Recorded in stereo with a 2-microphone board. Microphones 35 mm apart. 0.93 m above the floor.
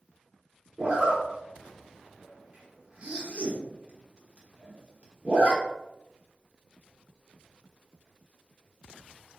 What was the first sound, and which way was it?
A zipper, 35° right (ahead or behind).